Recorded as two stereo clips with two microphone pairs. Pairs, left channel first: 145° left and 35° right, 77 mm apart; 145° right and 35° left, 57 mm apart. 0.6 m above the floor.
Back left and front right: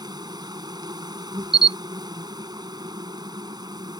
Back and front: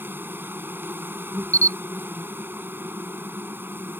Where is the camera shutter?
150° left.